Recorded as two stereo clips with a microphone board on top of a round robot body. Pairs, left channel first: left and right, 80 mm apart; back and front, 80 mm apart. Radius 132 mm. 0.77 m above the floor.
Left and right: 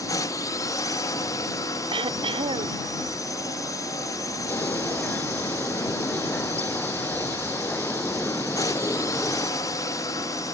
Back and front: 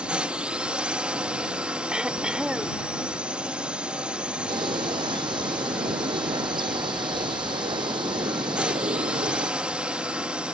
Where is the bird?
20° left.